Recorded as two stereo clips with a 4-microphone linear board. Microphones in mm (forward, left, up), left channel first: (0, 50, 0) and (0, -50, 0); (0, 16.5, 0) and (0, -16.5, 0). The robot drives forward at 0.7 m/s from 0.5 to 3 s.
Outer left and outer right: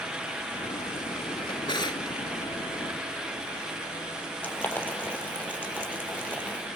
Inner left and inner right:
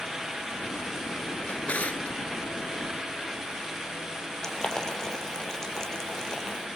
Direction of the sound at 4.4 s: 15° left (ahead or behind).